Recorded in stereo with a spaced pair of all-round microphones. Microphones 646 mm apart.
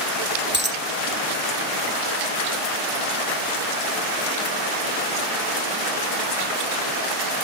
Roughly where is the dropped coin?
Centre.